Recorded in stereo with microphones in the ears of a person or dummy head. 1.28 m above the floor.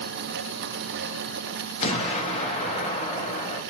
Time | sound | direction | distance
1.8 | an explosion | 25° left (ahead or behind) | 0.6 m